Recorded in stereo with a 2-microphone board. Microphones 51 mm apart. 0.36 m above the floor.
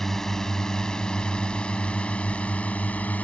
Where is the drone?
5° left (ahead or behind); by 3.2 s 30° left (ahead or behind).